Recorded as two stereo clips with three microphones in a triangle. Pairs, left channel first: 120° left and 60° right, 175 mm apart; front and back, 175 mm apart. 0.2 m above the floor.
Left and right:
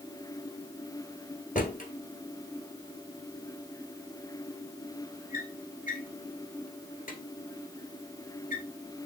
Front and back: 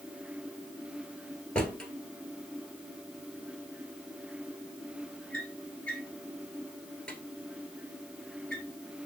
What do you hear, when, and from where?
1.6 s a drawer: 85° left, 1.5 m